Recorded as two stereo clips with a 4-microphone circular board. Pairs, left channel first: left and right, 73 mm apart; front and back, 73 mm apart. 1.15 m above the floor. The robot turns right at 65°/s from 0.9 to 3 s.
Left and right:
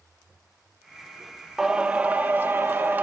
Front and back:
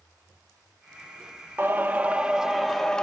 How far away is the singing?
About 0.6 m.